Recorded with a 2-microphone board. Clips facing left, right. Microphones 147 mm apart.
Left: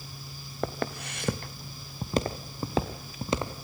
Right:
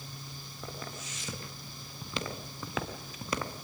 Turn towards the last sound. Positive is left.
turn(degrees=20)  # may be behind; listen again after turning